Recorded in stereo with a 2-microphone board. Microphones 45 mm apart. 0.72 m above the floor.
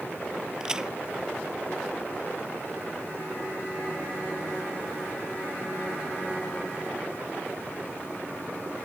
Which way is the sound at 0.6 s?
15° right (ahead or behind).